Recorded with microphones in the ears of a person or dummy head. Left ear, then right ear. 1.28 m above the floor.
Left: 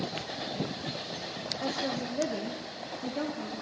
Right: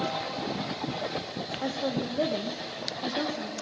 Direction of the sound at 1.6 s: 20° right (ahead or behind).